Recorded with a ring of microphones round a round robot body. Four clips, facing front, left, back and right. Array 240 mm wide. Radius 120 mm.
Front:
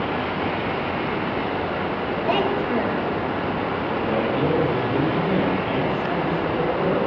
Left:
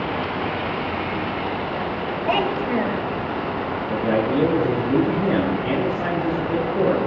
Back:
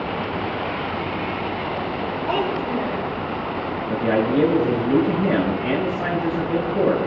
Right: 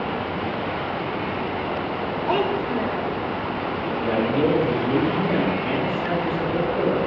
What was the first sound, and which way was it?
A child speaking, 60° left.